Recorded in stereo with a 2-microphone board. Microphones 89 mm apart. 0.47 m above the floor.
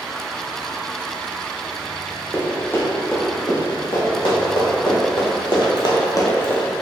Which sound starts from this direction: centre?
Running footsteps, at 2.3 s.